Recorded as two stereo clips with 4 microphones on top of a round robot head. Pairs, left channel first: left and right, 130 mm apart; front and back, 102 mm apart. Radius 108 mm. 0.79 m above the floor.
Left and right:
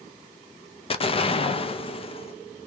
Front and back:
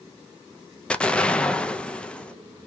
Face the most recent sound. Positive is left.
turn(degrees=75)